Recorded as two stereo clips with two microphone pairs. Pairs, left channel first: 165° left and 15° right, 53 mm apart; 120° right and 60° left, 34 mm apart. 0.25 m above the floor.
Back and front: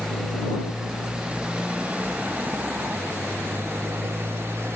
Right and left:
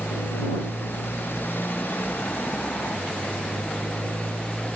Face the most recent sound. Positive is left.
turn(degrees=-60)